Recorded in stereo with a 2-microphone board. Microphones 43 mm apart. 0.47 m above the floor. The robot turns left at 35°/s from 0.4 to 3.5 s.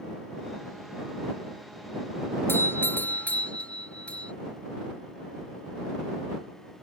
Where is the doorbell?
70° left; by 4.3 s 35° left.